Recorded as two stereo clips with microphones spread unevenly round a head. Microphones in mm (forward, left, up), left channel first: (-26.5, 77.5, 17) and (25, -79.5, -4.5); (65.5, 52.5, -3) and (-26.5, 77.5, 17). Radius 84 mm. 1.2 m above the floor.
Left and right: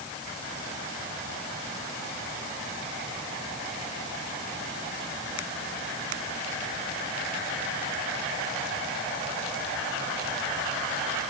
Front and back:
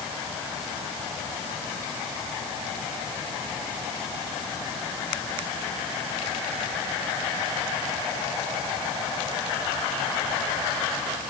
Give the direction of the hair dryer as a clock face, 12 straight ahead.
No hair dryer in this recording.